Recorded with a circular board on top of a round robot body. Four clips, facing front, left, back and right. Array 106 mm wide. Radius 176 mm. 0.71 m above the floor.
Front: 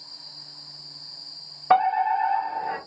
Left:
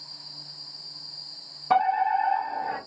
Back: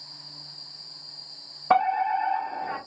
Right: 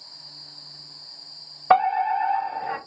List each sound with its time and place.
1.7 s a fire alarm: 80° right, 2.0 m